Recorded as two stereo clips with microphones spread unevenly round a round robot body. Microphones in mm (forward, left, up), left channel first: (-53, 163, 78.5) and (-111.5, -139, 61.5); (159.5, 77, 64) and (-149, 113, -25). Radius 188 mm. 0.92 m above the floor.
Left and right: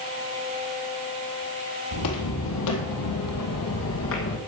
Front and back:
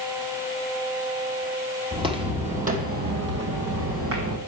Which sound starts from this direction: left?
Footsteps, at 1.9 s.